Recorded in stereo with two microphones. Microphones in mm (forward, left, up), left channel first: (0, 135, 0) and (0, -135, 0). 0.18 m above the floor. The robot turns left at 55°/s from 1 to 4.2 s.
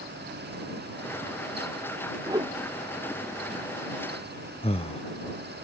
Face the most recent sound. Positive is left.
turn(degrees=20)  # may be behind; listen again after turning